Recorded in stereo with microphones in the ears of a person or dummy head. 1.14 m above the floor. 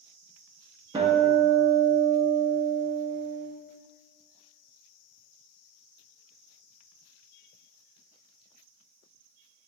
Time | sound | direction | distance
0.9 | a guitar | 15° right (ahead or behind) | 0.8 m